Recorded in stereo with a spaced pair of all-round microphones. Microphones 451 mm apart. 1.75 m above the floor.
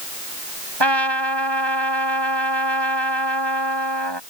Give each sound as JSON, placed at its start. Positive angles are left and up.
{"t": 0.8, "sound": "a trumpet", "side_deg": -65}